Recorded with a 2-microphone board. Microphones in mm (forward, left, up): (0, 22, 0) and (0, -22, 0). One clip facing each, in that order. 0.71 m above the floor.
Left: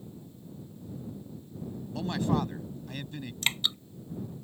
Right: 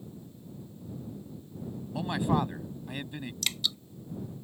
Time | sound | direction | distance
1.9 | a man speaking | 15° right (ahead or behind) | ?
3.4 | dripping | 35° left (ahead or behind) | ?